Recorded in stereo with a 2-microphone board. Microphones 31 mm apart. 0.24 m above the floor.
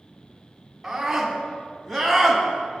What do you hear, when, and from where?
0.8 s a scream: 5° right (ahead or behind), 2.5 m; by 2.4 s 15° left (ahead or behind), 2.0 m